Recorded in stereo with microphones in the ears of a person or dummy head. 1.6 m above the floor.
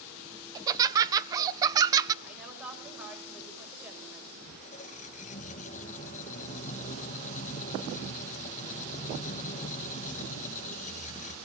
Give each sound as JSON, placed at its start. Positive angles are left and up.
{"t": 0.6, "sound": "laughter", "side_deg": -20, "distance_m": 1.2}
{"t": 2.2, "sound": "a woman speaking", "side_deg": -5, "distance_m": 7.5}
{"t": 4.4, "sound": "a squeak", "side_deg": 40, "distance_m": 1.2}